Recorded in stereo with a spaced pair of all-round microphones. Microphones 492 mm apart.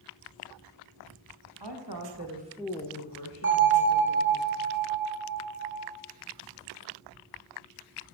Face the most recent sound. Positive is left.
turn(degrees=-25)  # may be behind; listen again after turning